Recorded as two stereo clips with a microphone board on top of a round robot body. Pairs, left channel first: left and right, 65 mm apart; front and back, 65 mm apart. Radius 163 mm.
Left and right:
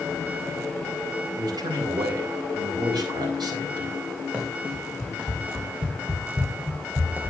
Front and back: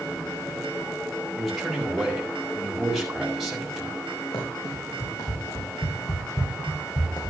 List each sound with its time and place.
1.4 s a man speaking: 90° right, 5 m
4.3 s running footsteps: 15° right, 5.5 m; by 7.3 s 25° right, 3 m